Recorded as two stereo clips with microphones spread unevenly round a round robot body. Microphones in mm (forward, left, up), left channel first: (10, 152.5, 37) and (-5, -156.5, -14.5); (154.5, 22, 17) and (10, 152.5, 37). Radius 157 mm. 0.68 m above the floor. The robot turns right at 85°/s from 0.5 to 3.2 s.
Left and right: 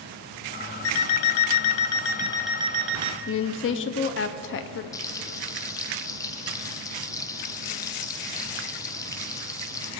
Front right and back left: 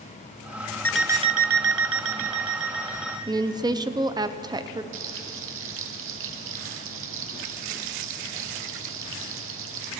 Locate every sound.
0.8 s an alarm clock: 40° left, 0.7 m; by 3.2 s 125° right, 0.7 m
3.3 s a woman speaking: 75° left, 0.6 m
4.9 s frying: 165° left, 0.5 m